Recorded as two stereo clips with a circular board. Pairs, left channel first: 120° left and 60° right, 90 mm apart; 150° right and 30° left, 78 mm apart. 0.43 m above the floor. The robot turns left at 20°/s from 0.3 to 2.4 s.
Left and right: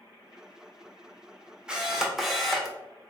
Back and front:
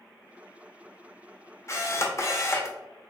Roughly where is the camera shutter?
Behind right.